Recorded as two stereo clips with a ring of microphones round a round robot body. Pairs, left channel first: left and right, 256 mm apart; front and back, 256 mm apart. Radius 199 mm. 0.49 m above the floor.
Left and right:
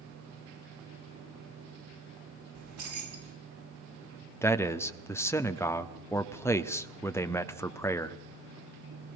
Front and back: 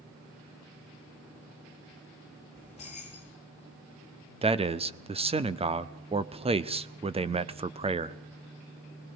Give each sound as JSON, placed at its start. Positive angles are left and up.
{"t": 2.5, "sound": "keys jangling", "azimuth_deg": -70, "distance_m": 3.5}
{"t": 4.4, "sound": "a man speaking", "azimuth_deg": 155, "distance_m": 1.0}